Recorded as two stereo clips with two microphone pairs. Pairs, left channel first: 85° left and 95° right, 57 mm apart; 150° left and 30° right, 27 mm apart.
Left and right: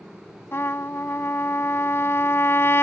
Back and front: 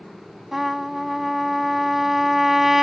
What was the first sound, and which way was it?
A trumpet, 50° left.